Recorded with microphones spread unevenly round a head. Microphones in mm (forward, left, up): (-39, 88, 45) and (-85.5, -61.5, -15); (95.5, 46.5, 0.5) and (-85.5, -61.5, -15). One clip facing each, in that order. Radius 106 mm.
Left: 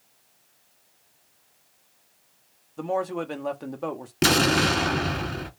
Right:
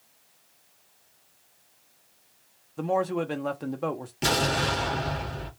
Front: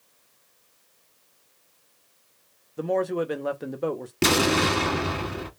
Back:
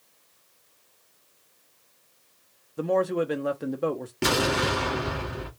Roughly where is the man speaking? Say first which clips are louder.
Right 1 dB, back 1 dB; right.